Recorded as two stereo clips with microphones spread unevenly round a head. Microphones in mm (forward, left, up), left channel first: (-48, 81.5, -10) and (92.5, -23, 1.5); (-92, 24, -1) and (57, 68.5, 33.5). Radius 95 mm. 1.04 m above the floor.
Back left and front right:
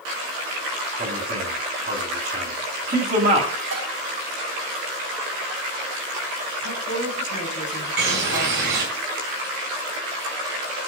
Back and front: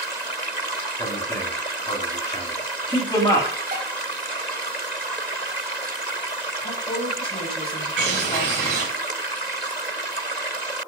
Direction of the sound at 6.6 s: 145° left.